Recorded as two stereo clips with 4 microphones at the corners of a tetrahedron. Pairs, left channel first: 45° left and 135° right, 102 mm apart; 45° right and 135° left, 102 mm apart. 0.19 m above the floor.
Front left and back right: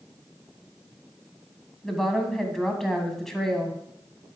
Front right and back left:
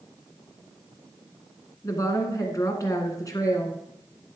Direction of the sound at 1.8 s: 40° right.